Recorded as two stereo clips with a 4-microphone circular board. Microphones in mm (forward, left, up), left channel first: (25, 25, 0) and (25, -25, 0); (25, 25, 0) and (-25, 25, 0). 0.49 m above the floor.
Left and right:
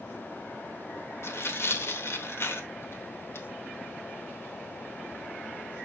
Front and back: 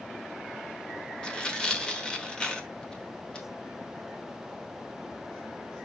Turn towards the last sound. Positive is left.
turn(degrees=70)